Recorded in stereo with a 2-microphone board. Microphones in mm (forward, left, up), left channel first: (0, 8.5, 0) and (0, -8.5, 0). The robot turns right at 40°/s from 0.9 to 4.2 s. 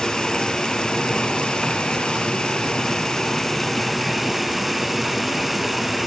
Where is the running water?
40° left, 1.1 m; by 6.1 s 175° left, 1.1 m.